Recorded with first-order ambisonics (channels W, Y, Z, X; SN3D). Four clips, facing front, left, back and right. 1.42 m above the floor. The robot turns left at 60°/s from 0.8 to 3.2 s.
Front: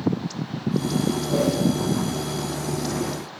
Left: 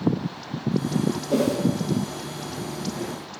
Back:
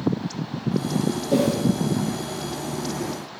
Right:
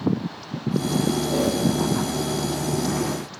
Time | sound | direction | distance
1.3 | a whoosh | 155° left | 2.5 m